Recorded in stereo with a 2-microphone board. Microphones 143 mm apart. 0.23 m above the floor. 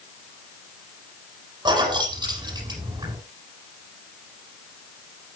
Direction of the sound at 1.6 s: 30° right (ahead or behind).